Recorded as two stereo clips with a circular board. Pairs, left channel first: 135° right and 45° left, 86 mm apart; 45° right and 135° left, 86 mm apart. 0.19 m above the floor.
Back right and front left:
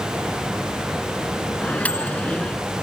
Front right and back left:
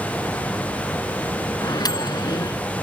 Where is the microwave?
65° right.